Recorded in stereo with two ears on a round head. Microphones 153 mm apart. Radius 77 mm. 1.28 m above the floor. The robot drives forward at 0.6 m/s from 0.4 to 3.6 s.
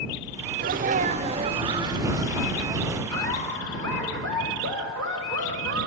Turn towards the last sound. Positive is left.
turn(degrees=25)  # may be behind; listen again after turning